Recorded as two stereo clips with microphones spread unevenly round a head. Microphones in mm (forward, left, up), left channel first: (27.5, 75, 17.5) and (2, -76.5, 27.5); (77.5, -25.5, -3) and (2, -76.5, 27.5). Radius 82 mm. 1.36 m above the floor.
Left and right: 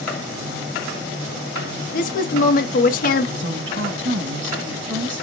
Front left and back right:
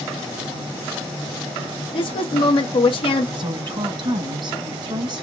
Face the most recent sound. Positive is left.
turn(degrees=-115)